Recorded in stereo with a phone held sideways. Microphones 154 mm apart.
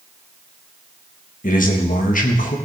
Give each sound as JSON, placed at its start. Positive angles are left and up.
{"t": 1.4, "sound": "a man speaking", "side_deg": 60, "distance_m": 1.4}